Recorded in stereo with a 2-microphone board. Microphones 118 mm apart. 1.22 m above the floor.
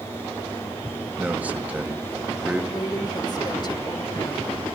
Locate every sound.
1.2 s a man speaking: 15° right (ahead or behind), 1.7 m
2.7 s a woman speaking: 40° left (ahead or behind), 2.5 m